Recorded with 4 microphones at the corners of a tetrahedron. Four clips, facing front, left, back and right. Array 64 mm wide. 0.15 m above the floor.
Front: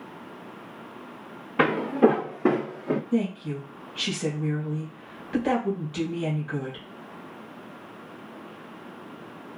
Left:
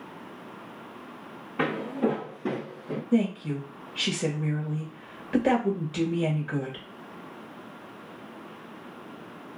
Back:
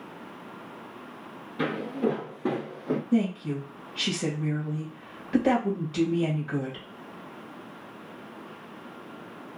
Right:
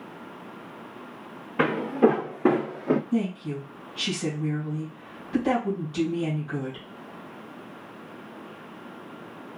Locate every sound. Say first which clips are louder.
1.6 s footsteps: right 6 dB, front 8 dB; 20° right, 0.8 m; by 3.0 s 85° right, 0.5 m
3.1 s a woman speaking: left 2 dB, back 1 dB; 120° left, 2.5 m